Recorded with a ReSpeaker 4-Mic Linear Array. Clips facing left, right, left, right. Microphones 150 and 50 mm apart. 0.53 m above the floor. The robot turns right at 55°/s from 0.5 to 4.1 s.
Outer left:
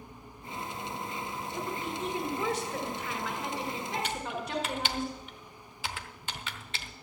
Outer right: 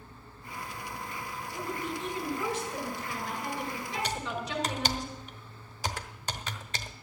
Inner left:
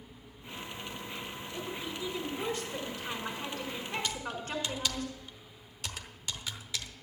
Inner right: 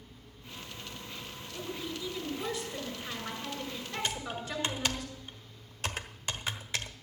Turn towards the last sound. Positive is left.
turn(degrees=-40)  # may be behind; listen again after turning